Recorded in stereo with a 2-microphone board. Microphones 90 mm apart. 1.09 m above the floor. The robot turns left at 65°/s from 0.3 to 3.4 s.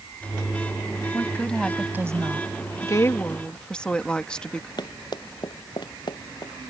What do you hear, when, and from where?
1.1 s a woman speaking: 30° left; by 2.5 s 55° right
2.8 s a woman speaking: 50° left; by 4.7 s 10° left
4.8 s running footsteps: 55° left (ahead or behind)